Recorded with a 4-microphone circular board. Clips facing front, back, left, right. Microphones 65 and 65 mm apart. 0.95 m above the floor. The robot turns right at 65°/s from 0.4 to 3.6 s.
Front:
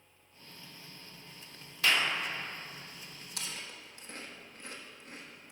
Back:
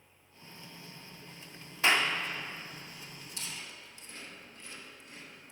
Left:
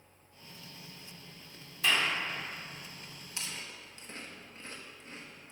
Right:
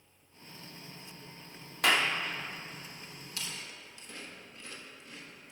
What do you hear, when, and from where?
1.8 s a clap: 120° right, 0.7 m; by 2.1 s 95° right, 0.7 m
3.4 s chewing: 25° left, 1.1 m; by 5.5 s 40° left, 1.1 m